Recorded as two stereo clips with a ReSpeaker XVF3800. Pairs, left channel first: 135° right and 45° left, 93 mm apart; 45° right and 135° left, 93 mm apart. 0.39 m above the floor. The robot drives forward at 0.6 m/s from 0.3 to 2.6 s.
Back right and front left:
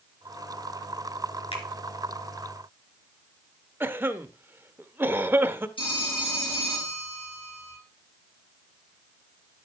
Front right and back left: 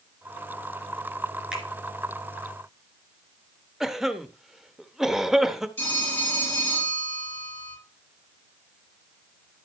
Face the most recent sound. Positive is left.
turn(degrees=-110)